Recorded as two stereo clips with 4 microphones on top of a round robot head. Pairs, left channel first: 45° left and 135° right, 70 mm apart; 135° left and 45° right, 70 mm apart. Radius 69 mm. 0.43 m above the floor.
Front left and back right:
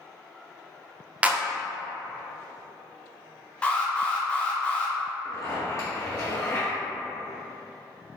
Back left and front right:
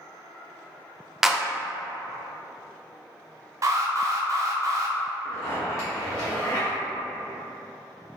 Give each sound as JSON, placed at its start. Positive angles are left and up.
{"t": 1.2, "sound": "a clap", "azimuth_deg": -120, "distance_m": 0.5}
{"t": 3.6, "sound": "an alarm", "azimuth_deg": -25, "distance_m": 0.7}
{"t": 5.2, "sound": "a zipper", "azimuth_deg": 90, "distance_m": 1.9}